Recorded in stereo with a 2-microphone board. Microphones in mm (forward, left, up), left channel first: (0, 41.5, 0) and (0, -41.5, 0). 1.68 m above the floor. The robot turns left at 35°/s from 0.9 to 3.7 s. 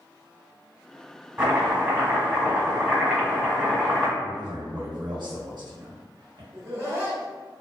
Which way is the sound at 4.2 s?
65° right (ahead or behind).